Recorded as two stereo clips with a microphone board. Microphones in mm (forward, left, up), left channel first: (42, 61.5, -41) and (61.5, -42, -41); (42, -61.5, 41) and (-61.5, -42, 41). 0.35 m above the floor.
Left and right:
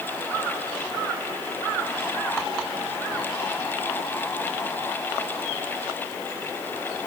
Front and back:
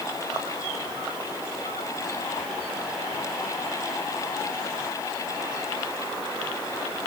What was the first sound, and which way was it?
Only background noise.